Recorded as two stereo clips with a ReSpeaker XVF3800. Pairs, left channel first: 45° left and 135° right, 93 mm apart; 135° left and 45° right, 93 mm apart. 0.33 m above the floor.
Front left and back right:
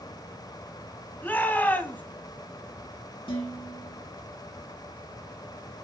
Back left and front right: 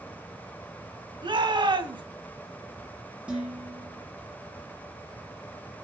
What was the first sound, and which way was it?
A shout, 25° right.